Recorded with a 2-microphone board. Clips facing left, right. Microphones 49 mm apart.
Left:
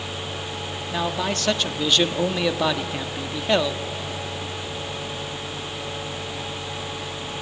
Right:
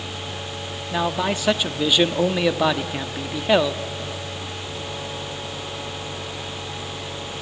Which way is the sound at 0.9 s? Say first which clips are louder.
Right 3 dB; 10° right (ahead or behind).